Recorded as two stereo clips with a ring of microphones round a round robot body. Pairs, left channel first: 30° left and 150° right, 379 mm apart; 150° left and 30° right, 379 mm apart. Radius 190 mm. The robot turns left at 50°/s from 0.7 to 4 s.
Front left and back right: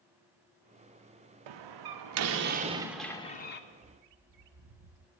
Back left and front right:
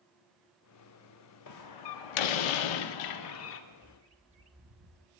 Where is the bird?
90° right, 0.5 m; by 5.1 s 105° right, 0.5 m.